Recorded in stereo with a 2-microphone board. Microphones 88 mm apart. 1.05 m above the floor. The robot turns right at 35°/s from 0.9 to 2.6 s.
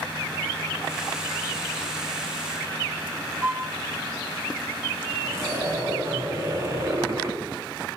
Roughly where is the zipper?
Right.